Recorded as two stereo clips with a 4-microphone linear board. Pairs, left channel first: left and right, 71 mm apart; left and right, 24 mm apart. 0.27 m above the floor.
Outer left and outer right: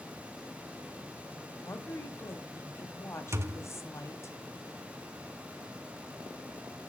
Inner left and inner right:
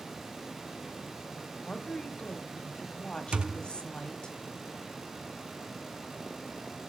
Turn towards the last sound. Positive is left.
turn(degrees=-45)  # may be behind; listen again after turning